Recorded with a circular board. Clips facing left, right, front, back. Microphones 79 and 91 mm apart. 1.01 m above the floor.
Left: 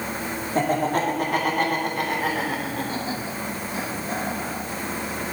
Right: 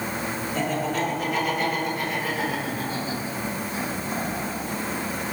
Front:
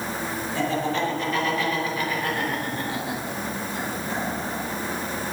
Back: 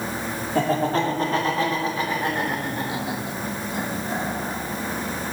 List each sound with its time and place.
0.6 s laughter: 135° left, 2.5 m; by 4.6 s 100° left, 4.5 m